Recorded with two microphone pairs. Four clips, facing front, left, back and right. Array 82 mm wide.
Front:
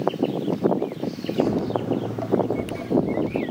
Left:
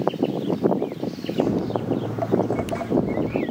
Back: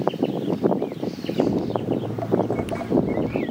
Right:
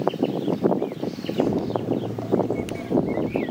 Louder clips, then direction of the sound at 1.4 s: Even, even; 30° left.